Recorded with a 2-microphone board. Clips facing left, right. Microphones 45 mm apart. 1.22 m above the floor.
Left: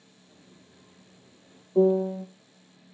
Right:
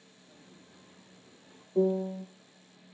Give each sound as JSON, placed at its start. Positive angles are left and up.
{"t": 0.3, "sound": "footsteps", "side_deg": -75, "distance_m": 8.0}
{"t": 1.8, "sound": "a piano", "side_deg": 30, "distance_m": 0.8}